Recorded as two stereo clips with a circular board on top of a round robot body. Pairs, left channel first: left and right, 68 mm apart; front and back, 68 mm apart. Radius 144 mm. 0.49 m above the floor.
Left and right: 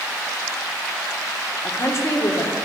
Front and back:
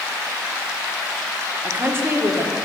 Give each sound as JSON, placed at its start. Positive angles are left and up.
{"t": 1.6, "sound": "a woman speaking", "azimuth_deg": 130, "distance_m": 1.6}